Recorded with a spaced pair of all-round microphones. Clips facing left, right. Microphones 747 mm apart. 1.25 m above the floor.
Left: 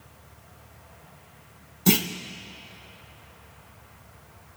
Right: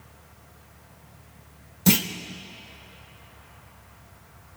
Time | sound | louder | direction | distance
1.9 | a clunk | right 1 dB | 15° right (ahead or behind) | 0.6 m